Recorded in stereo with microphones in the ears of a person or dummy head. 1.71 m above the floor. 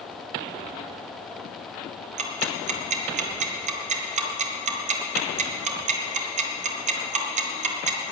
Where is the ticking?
40° right (ahead or behind), 2.0 m.